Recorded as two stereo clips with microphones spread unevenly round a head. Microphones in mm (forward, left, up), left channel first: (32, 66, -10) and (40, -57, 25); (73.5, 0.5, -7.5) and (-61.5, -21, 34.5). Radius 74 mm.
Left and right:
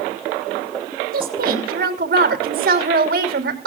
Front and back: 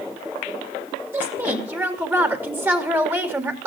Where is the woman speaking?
95° right, 3 m.